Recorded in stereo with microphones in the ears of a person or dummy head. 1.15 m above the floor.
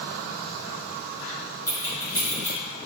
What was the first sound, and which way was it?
Keys jangling, 10° left (ahead or behind).